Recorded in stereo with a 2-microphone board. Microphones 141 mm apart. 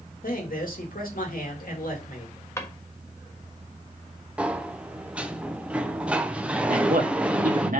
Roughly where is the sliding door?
Centre.